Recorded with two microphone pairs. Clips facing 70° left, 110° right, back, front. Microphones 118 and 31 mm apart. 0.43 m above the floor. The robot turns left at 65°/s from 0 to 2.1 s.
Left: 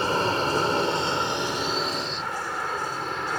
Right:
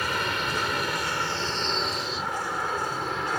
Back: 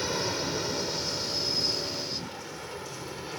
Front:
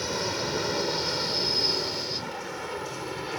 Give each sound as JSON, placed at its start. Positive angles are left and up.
{"t": 0.0, "sound": "an aircraft", "azimuth_deg": 100}